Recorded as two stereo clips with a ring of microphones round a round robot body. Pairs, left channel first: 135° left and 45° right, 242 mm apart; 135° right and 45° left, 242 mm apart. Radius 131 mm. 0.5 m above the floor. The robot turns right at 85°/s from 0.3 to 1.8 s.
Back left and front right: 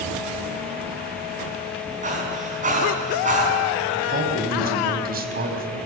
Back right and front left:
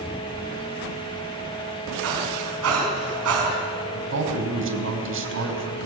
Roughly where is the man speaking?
Ahead.